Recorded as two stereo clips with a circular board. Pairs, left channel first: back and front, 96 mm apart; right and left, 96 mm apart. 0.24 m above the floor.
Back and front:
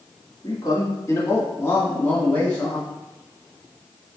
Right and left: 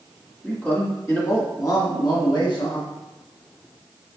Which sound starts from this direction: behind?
A man speaking, at 0.4 s.